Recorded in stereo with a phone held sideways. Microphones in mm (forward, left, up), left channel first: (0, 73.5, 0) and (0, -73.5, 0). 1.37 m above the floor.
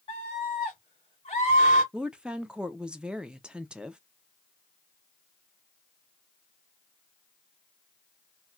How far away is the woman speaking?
About 0.6 m.